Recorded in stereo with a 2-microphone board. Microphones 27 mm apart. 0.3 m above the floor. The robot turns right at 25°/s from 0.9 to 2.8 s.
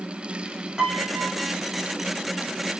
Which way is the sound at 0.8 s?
20° right (ahead or behind).